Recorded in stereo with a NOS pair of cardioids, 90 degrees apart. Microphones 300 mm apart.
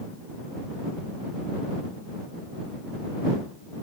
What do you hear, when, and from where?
Only background noise.